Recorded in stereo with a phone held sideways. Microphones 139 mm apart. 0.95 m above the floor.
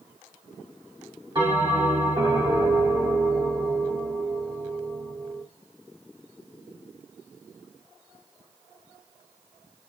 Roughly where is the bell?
Right.